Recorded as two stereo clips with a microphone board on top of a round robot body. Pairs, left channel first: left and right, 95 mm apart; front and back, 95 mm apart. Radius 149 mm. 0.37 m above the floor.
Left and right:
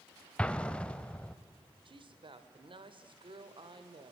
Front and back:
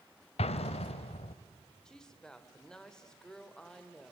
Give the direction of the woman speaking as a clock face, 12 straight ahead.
3 o'clock.